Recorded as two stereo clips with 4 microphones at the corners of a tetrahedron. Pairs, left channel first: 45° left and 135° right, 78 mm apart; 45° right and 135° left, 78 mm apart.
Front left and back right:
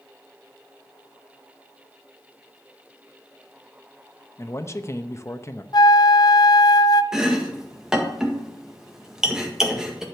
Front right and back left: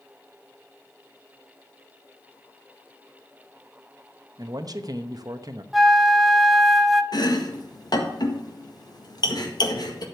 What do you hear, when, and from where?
4.4 s a man speaking: 100° left, 0.9 m
5.7 s a flute: 45° left, 0.5 m
7.1 s chopping: 55° right, 1.6 m